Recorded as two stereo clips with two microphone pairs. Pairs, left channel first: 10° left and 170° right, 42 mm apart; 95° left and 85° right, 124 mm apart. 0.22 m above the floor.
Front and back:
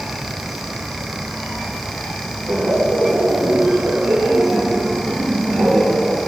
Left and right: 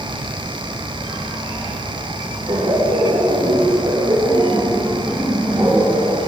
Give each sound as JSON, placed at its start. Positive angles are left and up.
{"t": 2.5, "sound": "laughter", "azimuth_deg": -140, "distance_m": 4.5}